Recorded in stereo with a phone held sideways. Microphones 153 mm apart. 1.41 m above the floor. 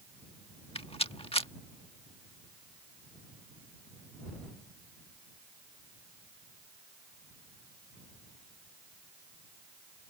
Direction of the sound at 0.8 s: 40° left (ahead or behind).